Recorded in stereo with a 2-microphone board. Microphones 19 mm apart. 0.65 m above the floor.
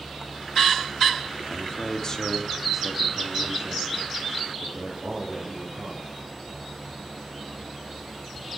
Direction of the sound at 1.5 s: 50° left (ahead or behind).